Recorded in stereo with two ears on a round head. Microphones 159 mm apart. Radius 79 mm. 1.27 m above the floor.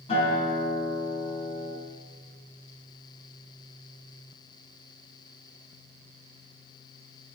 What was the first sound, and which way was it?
A guitar, 35° left (ahead or behind).